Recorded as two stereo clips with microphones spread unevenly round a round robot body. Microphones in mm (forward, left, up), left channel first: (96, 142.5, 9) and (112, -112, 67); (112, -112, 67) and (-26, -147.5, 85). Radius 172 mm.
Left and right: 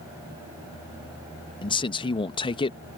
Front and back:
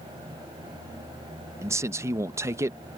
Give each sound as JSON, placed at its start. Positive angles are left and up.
{"t": 1.6, "sound": "a man speaking", "azimuth_deg": 125}